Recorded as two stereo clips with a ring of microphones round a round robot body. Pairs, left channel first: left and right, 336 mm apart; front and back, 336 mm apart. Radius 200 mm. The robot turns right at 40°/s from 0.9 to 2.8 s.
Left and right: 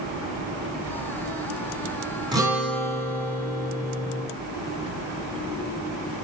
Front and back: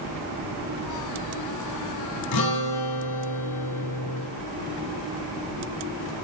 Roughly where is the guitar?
Ahead.